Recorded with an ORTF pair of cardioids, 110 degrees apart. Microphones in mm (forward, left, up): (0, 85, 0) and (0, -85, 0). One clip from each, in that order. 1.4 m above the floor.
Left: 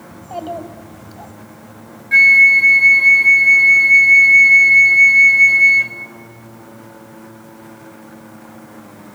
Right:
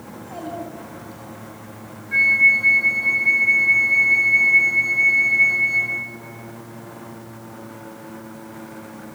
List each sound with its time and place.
0.1 s a child speaking: 55° left, 6 m
2.1 s a flute: 60° left, 3 m